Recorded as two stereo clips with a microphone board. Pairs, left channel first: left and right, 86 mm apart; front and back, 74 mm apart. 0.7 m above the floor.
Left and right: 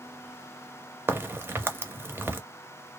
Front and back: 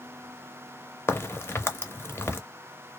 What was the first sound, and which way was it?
A crack, 40° right.